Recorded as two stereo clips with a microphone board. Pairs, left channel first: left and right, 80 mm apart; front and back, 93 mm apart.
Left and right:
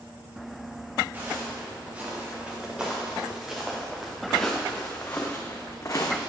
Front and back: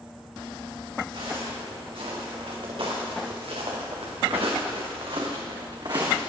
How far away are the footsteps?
About 3.5 m.